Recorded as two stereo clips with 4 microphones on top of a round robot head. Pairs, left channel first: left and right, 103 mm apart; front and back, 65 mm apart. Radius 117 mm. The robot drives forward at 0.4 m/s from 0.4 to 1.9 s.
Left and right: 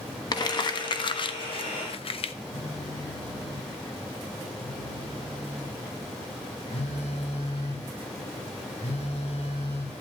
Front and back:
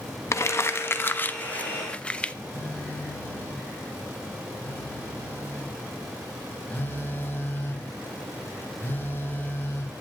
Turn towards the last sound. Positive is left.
turn(degrees=55)